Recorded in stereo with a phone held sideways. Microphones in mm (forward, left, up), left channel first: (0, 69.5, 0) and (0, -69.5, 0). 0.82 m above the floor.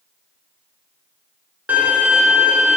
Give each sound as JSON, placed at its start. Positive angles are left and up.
{"t": 1.7, "sound": "a violin", "side_deg": -10, "distance_m": 0.5}